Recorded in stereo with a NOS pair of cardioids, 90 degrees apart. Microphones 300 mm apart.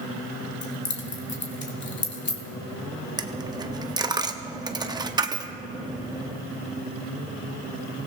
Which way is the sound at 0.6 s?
35° left.